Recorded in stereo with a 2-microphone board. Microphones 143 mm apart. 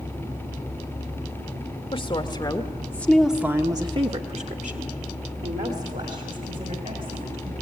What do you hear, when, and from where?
1.9 s a woman speaking: 40° left (ahead or behind), 2.0 m; by 7.5 s 75° right (ahead or behind), 4.5 m